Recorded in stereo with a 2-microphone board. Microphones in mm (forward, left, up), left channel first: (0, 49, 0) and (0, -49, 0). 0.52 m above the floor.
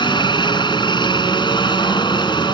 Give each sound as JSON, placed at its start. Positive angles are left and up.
{"t": 0.0, "sound": "a helicopter", "side_deg": 55}